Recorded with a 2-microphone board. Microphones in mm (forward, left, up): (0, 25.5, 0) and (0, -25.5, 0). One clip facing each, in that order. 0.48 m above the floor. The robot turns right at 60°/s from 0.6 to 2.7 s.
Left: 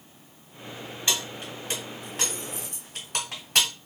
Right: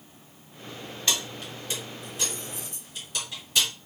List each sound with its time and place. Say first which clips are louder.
1.1 s keys jangling: even; 15° left (ahead or behind), 1.9 m; by 3.7 s 65° left (ahead or behind), 1.9 m